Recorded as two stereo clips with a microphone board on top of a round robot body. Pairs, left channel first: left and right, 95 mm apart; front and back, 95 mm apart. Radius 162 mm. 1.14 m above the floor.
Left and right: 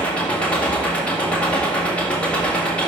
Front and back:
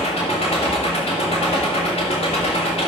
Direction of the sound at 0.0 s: 10° left.